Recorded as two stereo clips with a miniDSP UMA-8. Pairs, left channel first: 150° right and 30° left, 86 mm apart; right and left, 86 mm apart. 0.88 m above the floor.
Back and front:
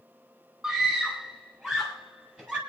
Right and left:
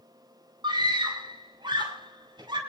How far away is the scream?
About 8 m.